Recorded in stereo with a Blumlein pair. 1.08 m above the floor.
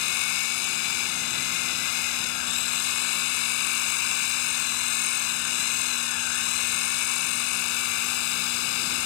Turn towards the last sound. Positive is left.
turn(degrees=45)